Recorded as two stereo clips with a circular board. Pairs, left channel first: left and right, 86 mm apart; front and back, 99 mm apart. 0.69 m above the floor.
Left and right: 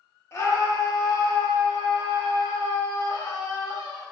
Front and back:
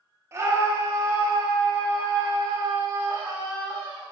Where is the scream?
130° left, 1.4 m; by 4.0 s 120° left, 4.5 m.